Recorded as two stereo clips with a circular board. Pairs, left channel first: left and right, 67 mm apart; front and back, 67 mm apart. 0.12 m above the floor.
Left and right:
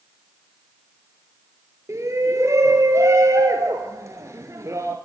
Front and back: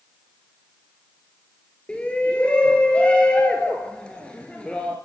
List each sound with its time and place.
1.9 s a shout: 70° right, 2 m